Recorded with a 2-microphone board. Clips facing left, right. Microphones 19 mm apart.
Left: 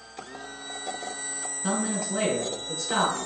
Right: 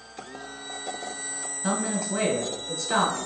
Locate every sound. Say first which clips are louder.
1.6 s a man speaking: right 1 dB; 20° right (ahead or behind), 1.5 m